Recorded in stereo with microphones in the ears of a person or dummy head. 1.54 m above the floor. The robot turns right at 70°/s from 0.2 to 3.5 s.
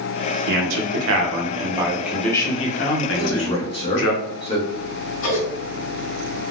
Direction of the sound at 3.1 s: 55° left (ahead or behind).